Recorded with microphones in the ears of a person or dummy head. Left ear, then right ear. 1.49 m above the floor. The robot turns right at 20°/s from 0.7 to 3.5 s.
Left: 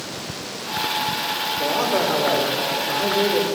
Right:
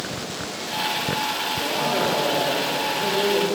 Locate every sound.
1.6 s a man speaking: 50° left, 4.5 m; by 3.5 s 85° left, 4.5 m